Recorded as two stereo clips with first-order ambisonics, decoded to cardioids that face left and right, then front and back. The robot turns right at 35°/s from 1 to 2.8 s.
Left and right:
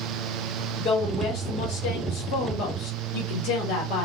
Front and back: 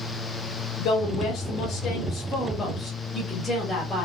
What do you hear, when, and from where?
0.8 s a woman speaking: 30° left, 1.1 m; by 4.1 s 90° left, 1.1 m